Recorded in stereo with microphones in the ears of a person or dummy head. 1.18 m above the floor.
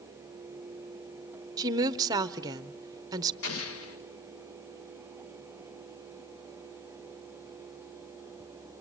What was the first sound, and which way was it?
A woman speaking, 20° right (ahead or behind).